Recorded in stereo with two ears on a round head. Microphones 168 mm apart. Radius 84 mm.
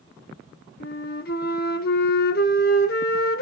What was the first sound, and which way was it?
A flute, 50° left (ahead or behind).